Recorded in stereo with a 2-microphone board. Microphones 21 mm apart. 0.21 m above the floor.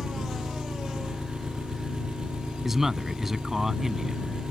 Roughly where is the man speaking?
Centre.